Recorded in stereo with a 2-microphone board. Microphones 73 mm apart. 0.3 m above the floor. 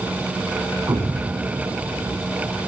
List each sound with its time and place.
0.9 s an explosion: 60° right (ahead or behind), 0.7 m